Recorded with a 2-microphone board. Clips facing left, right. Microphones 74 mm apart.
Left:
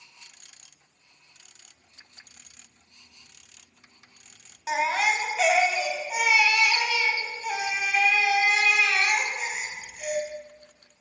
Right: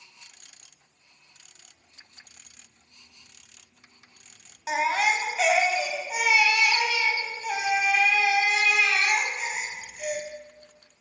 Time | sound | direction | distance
4.7 | a baby crying | 5° right (ahead or behind) | 1.0 m